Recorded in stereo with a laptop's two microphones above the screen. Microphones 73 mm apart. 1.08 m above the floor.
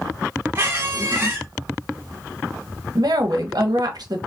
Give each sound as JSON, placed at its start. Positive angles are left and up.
{"t": 0.6, "sound": "a squeak", "side_deg": -30, "distance_m": 1.3}
{"t": 3.0, "sound": "a woman speaking", "side_deg": -60, "distance_m": 0.9}